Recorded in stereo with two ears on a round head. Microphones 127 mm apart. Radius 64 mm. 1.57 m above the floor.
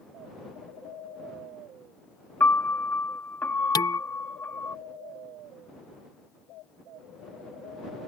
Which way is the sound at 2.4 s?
10° left (ahead or behind).